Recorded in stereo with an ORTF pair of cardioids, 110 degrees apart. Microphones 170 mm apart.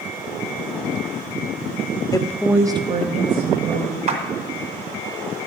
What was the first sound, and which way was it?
A woman speaking, 25° left.